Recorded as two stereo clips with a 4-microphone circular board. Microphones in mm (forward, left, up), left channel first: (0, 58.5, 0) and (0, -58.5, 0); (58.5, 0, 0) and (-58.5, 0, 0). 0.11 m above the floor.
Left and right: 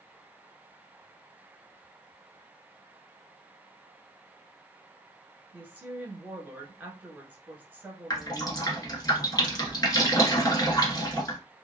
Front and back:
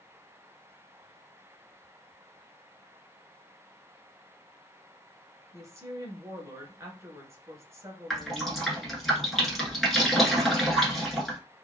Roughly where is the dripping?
Left.